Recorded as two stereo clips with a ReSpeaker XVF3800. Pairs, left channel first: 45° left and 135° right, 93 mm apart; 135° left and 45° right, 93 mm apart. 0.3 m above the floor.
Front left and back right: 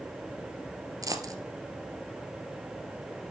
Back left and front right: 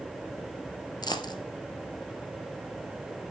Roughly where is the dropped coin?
Behind.